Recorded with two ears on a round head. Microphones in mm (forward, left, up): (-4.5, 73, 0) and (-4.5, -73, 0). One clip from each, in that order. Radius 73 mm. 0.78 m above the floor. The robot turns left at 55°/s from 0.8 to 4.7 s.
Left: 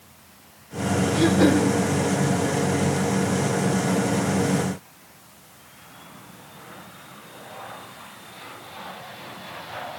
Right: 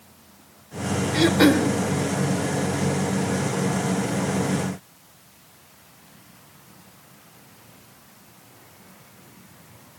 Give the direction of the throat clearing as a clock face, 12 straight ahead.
1 o'clock.